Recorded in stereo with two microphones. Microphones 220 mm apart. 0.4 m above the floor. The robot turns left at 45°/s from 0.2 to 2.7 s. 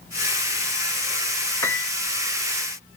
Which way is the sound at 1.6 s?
15° left (ahead or behind).